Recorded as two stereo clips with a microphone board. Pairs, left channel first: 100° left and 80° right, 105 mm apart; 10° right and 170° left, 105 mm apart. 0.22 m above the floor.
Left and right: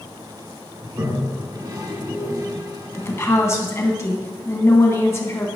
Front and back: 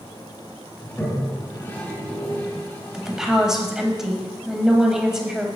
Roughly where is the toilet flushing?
Ahead right.